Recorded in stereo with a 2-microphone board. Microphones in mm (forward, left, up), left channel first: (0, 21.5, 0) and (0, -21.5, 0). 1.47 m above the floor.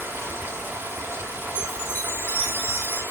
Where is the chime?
60° right (ahead or behind), 5 m.